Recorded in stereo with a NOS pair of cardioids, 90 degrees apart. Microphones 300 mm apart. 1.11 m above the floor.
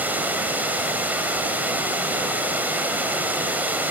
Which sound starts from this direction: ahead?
Running water, at 0.0 s.